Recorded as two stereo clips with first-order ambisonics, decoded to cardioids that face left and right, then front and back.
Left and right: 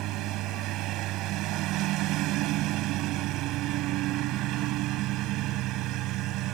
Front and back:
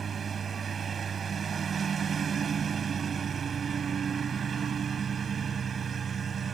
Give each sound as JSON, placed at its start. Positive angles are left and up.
{"t": 0.0, "sound": "a lawn mower", "azimuth_deg": -120}